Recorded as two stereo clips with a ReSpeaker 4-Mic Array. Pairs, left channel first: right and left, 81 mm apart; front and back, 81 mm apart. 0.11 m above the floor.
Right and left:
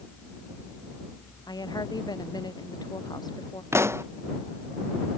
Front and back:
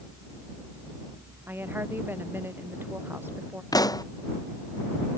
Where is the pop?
35° left.